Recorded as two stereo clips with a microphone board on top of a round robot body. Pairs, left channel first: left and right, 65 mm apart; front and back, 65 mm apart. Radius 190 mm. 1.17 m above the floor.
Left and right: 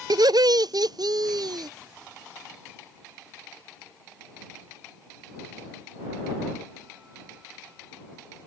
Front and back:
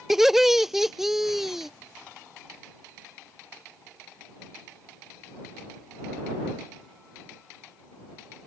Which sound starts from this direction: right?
Laughter, at 0.1 s.